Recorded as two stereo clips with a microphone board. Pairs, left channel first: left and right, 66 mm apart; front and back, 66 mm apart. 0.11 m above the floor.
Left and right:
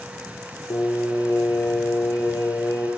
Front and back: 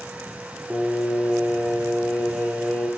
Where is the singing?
80° left, 1.0 m.